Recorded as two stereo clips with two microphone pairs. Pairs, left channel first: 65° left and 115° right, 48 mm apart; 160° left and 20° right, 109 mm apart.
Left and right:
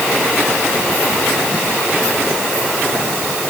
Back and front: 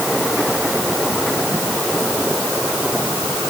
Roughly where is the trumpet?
No trumpet in this recording.